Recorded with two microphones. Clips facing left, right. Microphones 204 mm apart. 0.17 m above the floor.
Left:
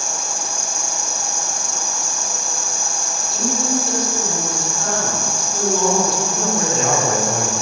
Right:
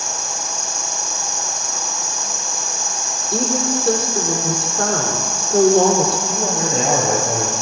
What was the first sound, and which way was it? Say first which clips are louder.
An insect: even; 5° left (ahead or behind).